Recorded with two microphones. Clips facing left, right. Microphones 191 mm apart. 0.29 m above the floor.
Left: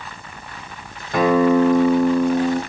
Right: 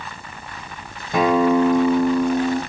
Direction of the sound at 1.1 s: 15° right (ahead or behind).